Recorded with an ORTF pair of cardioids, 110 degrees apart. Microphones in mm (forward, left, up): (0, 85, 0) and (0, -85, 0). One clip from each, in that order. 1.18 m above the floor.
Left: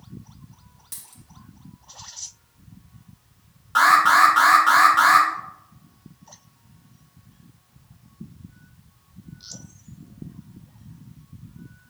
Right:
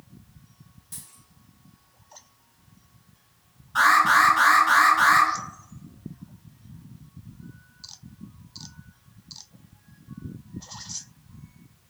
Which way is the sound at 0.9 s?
50° left.